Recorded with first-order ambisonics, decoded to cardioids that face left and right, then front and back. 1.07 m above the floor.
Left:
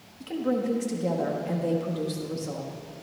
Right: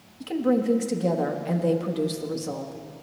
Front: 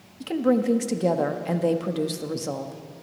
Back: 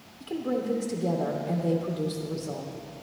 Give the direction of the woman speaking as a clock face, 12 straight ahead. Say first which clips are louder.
Right 4 dB, front 7 dB; 12 o'clock.